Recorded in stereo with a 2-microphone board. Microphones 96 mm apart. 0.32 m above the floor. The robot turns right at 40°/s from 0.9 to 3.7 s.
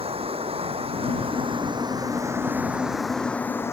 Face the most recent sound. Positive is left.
turn(degrees=25)